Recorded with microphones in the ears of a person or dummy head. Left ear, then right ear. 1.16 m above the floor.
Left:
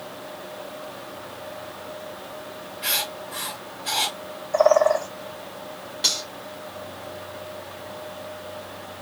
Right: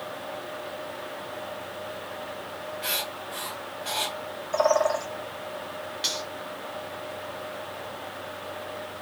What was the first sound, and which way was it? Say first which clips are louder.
Writing: left 5 dB; 30° right (ahead or behind).